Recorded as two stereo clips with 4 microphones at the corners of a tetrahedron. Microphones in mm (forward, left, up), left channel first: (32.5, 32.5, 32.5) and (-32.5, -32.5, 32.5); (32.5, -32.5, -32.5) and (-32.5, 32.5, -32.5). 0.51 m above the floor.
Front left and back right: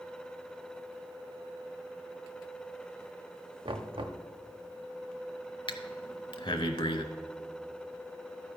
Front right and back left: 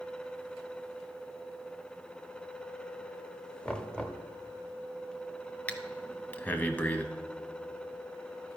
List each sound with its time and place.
3.6 s knocking: 120° right, 0.7 m
5.7 s breathing: 30° left, 0.6 m